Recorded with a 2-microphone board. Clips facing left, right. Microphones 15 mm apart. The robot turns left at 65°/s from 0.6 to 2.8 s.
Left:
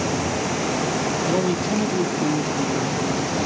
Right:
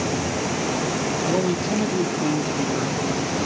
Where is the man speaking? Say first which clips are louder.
Even; 35° left, 1.3 m; by 3.0 s 65° right, 1.3 m.